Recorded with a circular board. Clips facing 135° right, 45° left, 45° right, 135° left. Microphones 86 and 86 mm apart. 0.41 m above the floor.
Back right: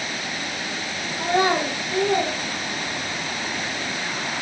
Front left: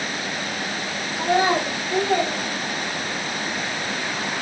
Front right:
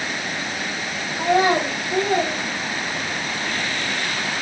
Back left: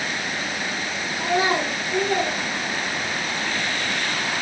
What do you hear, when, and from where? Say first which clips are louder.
1.2 s a child speaking: front left 1 dB, front right 4 dB; 40° right, 1.1 m; by 3.3 s 55° left, 1.7 m